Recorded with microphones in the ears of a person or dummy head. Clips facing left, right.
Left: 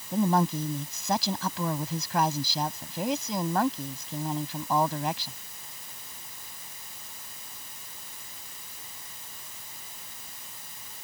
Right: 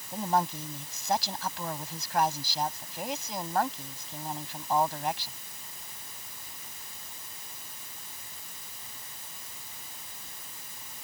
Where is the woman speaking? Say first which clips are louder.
Left 5 dB; 70° left (ahead or behind).